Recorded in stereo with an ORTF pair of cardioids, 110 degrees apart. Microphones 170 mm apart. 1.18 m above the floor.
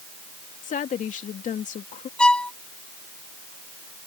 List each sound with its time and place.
0.6 s a woman speaking: 50° left
2.2 s a violin: 5° left